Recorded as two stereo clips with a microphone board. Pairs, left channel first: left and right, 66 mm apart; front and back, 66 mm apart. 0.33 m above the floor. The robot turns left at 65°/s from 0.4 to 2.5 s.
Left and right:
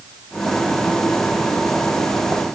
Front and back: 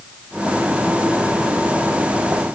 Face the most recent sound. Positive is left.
No sound to turn to.